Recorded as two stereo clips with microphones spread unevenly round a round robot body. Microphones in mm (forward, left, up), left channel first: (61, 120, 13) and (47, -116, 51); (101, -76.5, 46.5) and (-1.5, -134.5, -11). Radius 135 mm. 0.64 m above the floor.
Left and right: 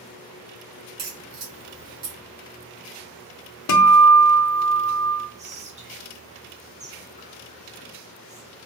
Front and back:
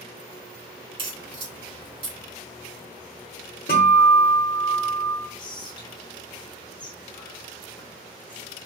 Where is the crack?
155° right, 2.5 m.